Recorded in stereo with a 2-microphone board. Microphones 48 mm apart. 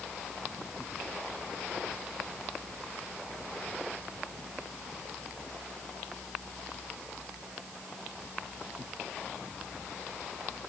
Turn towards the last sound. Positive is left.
No sound to turn to.